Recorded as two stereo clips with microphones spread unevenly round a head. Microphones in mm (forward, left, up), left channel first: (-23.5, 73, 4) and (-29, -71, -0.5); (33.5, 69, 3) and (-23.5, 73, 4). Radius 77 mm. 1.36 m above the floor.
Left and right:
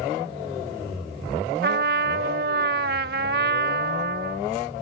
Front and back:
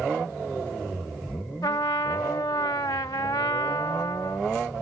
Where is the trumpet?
60° right.